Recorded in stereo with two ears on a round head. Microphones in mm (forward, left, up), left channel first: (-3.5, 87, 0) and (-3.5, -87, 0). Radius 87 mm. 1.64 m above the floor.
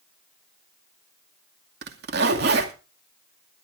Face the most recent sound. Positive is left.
turn(degrees=-55)  # may be behind; listen again after turning